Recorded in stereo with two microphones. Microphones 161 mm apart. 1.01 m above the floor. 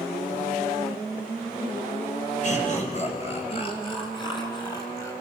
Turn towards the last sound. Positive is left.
turn(degrees=20)  # may be behind; listen again after turning